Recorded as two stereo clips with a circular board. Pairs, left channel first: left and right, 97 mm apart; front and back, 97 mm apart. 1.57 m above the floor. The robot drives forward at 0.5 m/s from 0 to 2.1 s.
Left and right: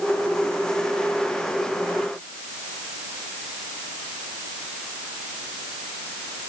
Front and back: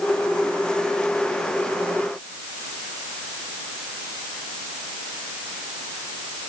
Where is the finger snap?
I don't hear a finger snap.